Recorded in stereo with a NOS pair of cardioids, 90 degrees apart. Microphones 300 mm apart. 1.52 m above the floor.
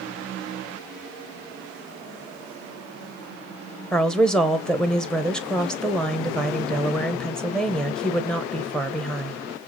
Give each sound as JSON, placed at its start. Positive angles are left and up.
{"t": 3.9, "sound": "a woman speaking", "azimuth_deg": 0, "distance_m": 1.2}